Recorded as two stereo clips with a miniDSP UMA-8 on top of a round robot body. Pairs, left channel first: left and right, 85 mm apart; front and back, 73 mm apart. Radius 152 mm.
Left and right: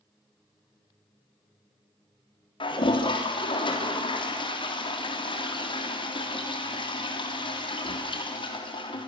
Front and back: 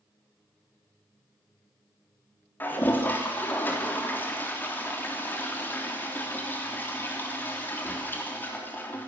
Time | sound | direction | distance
2.6 | a toilet flushing | 65° left | 3.5 m